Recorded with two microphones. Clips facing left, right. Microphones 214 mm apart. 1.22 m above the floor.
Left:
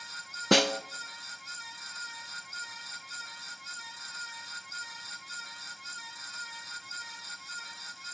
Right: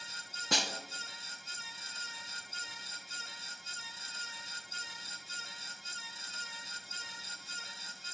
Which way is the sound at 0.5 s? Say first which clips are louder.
Left 14 dB; 70° left (ahead or behind).